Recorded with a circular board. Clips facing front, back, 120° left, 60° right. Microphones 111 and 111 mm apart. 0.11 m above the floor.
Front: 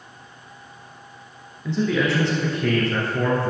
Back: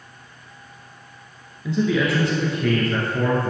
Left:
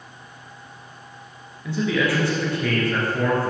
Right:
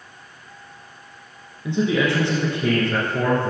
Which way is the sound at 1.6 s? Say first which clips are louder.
Back 1 dB, right 2 dB; 100° right.